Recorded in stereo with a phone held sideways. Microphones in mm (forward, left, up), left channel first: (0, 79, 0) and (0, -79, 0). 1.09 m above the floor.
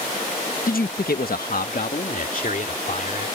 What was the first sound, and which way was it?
A man speaking, 65° left (ahead or behind).